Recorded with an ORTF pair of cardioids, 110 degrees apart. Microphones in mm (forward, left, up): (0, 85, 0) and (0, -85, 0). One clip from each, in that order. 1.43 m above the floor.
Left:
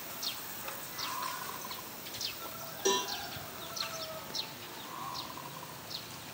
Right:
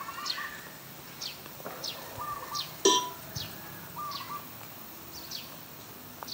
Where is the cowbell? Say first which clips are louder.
Right 6 dB; 50° right, 0.6 m.